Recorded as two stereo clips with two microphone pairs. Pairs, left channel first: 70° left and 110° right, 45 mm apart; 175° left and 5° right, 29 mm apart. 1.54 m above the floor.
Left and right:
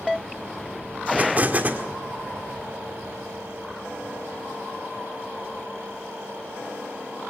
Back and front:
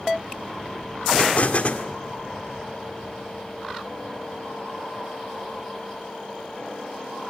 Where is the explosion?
155° right, 1.7 m.